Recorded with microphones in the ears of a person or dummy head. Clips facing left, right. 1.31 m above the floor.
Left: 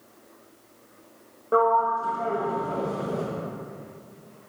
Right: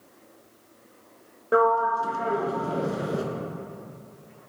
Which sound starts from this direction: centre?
A sliding door, at 1.5 s.